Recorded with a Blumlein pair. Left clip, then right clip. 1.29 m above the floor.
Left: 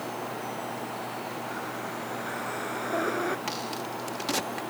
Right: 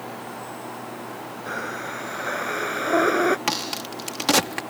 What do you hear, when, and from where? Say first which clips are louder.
1.5 s breathing: right 4 dB; 65° right
3.5 s a crack: right 6 dB; 30° right